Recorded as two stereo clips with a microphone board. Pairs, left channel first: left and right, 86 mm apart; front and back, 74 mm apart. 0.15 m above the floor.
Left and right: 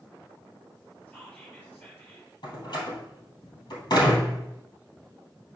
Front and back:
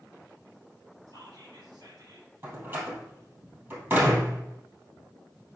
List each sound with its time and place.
1.1 s whispering: 160° left, 3.5 m
2.4 s a door slam: 120° left, 2.5 m